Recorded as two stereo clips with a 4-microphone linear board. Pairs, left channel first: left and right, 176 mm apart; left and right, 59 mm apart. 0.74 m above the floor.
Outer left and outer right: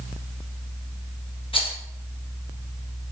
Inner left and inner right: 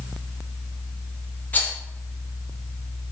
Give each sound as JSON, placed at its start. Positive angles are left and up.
{"t": 1.5, "sound": "a rattle", "side_deg": 30, "distance_m": 0.6}